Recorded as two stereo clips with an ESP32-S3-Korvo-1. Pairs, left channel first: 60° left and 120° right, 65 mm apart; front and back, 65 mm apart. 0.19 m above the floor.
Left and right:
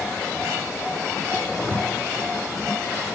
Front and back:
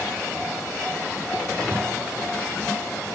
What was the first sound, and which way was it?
A zipper, 125° left.